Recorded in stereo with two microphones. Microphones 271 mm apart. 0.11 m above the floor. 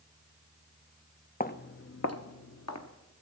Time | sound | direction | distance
1.4 | footsteps | 30° left (ahead or behind) | 0.6 m